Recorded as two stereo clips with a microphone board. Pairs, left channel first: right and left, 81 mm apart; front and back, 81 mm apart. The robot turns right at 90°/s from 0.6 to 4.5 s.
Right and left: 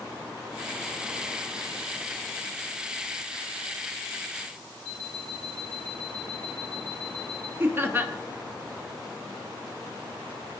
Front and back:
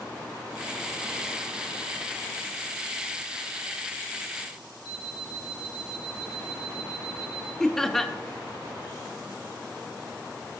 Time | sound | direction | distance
4.8 | an alarm clock | 155° right | 1.6 m
7.6 | laughter | 85° left | 0.7 m